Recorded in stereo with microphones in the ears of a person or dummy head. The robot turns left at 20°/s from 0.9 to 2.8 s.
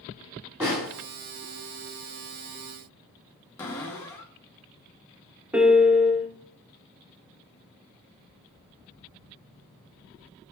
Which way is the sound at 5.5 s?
5° right (ahead or behind).